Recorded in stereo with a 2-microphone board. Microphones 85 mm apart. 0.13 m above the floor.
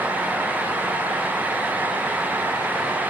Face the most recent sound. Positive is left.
No sound to turn to.